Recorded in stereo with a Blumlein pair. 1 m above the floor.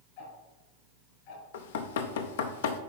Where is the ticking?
45° left, 2.5 m.